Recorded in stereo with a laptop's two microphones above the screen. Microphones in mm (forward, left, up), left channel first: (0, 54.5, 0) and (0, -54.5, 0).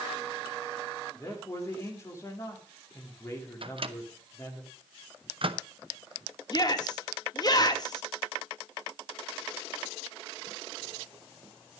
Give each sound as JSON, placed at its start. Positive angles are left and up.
{"t": 1.1, "sound": "a man speaking", "side_deg": 25, "distance_m": 2.5}
{"t": 3.6, "sound": "a microwave", "side_deg": -55, "distance_m": 0.7}
{"t": 6.5, "sound": "a shout", "side_deg": 40, "distance_m": 2.0}